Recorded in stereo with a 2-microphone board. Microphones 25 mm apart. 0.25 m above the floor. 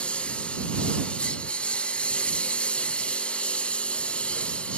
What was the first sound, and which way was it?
A lawn mower, 50° left (ahead or behind).